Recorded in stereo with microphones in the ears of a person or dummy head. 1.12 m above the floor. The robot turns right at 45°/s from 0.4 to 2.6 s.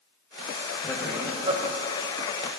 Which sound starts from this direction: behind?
Laughter, at 0.8 s.